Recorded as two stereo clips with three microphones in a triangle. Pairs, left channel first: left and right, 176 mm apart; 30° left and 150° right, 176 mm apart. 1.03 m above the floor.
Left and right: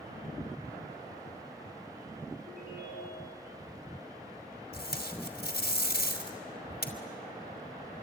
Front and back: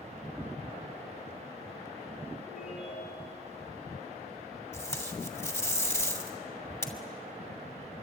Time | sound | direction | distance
2.5 | a ringtone | 65° right | 9.5 m
4.7 | tape being pulled | 105° left | 2.5 m